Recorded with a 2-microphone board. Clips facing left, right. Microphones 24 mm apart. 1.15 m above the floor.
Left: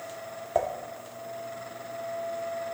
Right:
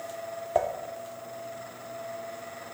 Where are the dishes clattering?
5° right (ahead or behind), 1.6 m.